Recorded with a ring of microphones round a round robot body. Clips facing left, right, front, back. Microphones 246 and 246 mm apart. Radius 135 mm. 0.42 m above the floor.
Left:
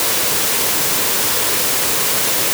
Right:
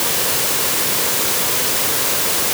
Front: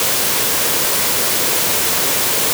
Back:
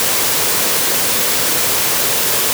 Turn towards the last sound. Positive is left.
No sound to turn to.